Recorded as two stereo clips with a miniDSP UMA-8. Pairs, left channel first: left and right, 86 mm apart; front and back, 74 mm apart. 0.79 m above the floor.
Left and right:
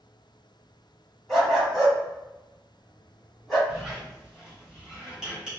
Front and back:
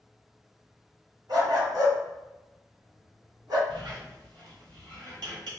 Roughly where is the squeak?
Behind.